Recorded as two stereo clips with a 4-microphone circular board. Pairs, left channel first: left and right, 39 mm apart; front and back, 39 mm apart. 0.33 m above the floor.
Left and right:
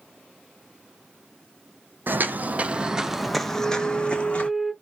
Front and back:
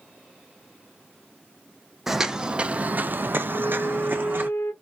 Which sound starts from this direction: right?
Footsteps, at 2.1 s.